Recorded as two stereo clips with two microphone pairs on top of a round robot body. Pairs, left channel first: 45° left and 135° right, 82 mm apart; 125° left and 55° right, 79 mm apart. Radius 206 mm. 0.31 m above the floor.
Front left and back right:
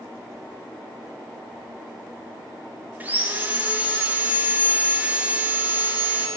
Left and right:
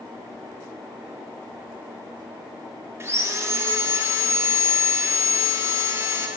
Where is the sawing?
75° right, 1.0 m.